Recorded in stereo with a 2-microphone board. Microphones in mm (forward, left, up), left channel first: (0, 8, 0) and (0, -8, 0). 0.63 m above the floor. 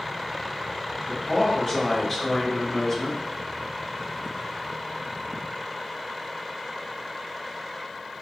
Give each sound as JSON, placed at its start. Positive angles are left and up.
{"t": 1.1, "sound": "a man speaking", "side_deg": 15, "distance_m": 1.8}